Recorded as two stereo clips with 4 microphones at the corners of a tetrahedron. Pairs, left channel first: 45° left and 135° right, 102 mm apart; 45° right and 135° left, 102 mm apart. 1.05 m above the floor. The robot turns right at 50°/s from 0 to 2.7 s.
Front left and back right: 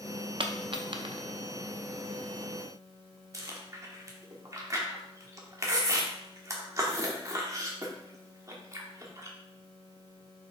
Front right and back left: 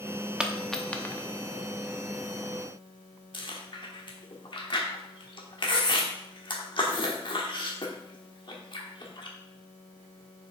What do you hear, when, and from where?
0.4 s a dropped coin: 145° right, 0.6 m; by 1.2 s 105° right, 0.6 m
3.3 s chewing: 80° right, 1.2 m